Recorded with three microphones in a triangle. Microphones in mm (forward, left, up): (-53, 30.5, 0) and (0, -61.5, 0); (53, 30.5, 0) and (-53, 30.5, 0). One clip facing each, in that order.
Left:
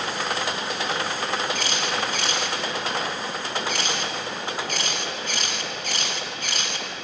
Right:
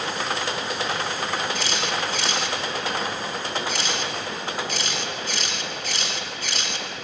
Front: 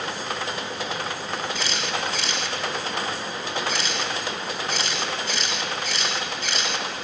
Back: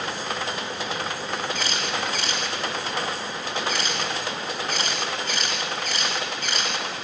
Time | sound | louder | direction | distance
1.6 | a camera shutter | even, even | 150° left | 2 m